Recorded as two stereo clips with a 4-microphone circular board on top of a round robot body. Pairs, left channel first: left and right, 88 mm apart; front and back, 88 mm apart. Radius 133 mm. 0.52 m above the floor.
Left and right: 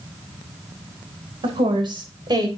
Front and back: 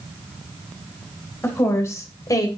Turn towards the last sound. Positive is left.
turn(degrees=-50)